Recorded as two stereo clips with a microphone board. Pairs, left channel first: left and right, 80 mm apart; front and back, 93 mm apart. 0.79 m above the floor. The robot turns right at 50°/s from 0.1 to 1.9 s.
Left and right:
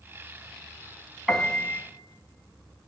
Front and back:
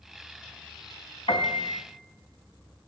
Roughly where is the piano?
Ahead.